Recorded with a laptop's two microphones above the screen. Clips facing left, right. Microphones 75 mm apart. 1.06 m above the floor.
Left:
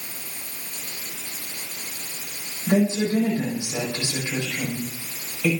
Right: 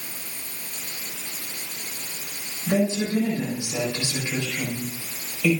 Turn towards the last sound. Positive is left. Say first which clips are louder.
# left 2 dB
turn(degrees=20)  # may be behind; listen again after turning